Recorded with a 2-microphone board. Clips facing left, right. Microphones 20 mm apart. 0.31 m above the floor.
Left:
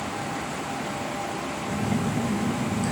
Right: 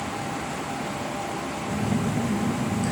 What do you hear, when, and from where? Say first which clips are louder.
1.7 s a phone buzzing: right 1 dB; centre (ahead or behind), 1.8 m